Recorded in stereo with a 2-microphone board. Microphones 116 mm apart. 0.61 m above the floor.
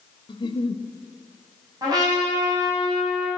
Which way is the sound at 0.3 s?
50° left (ahead or behind).